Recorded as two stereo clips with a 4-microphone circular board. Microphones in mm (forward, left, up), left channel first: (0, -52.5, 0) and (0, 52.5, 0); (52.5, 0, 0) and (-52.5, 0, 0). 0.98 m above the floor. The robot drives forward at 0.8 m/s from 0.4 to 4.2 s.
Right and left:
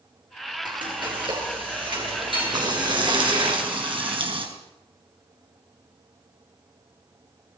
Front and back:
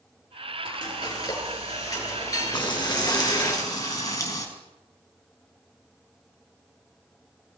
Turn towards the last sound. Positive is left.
turn(degrees=55)